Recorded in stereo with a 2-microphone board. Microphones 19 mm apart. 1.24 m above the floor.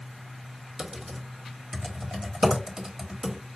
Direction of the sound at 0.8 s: 40° right (ahead or behind).